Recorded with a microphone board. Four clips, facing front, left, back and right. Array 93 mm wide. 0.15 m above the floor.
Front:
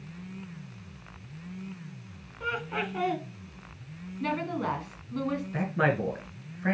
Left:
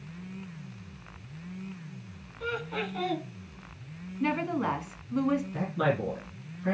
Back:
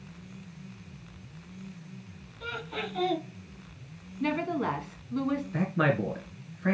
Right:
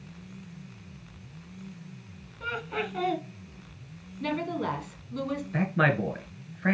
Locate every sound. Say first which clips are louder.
2.4 s laughter: right 1 dB, front 4 dB; 25° right, 1.3 m
4.2 s a woman speaking: left 2 dB, back 2 dB; 95° left, 1.5 m
5.5 s a man speaking: right 3 dB, front 1 dB; 70° right, 1.8 m